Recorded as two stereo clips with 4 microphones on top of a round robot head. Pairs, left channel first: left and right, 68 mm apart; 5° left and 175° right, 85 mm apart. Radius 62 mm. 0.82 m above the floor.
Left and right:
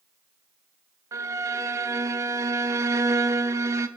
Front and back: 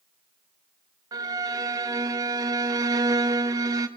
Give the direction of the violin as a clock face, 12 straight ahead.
4 o'clock.